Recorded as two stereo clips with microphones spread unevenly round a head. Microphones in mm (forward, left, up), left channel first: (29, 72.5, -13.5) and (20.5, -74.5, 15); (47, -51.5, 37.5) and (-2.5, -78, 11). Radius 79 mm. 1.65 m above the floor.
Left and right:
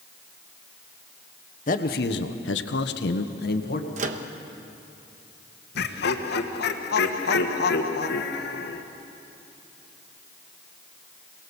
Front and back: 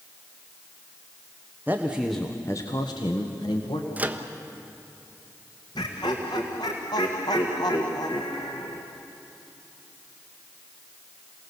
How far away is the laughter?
About 1.6 m.